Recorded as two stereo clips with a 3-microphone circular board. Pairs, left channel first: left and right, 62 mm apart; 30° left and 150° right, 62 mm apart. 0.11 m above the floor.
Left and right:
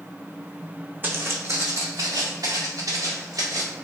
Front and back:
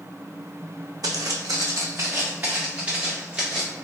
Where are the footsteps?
150° right, 0.5 m; by 3.7 s 70° right, 1.5 m.